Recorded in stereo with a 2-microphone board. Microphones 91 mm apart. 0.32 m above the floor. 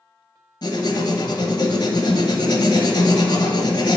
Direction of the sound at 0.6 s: 50° left (ahead or behind).